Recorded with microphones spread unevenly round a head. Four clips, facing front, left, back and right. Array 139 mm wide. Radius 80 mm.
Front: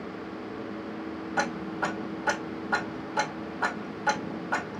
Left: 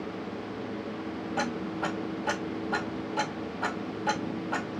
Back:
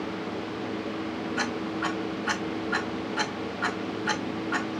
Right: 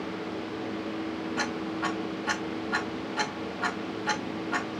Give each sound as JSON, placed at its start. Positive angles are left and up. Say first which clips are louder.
{"t": 1.4, "sound": "ticking", "louder": "left 2 dB, front 3 dB", "azimuth_deg": 40, "distance_m": 2.5}